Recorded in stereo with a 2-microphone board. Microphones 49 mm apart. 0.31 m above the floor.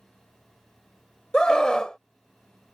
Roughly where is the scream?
Centre.